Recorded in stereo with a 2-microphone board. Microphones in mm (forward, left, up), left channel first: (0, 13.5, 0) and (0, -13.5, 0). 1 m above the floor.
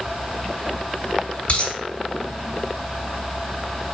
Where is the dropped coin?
55° left (ahead or behind), 2 m.